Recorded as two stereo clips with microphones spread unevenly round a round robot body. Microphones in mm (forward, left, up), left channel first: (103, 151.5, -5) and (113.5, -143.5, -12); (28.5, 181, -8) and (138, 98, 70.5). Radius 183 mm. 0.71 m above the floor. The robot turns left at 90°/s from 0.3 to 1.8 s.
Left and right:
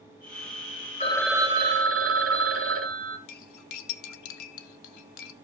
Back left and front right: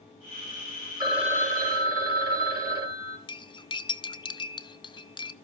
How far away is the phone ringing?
About 2.0 m.